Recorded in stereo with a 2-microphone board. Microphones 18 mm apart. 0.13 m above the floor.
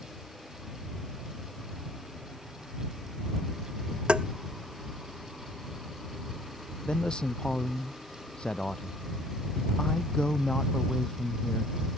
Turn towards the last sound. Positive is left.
turn(degrees=55)  # may be behind; listen again after turning